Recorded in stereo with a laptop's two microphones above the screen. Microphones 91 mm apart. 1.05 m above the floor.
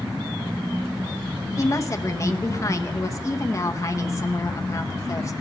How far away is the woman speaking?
About 0.9 m.